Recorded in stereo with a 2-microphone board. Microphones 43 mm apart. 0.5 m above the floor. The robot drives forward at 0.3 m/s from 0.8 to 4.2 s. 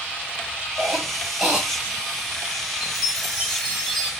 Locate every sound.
0.8 s a cough: 15° right (ahead or behind), 3.5 m
2.8 s a chime: 5° right (ahead or behind), 2.5 m